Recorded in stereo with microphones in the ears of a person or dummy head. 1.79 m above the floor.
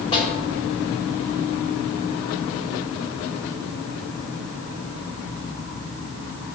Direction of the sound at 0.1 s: 25° left (ahead or behind).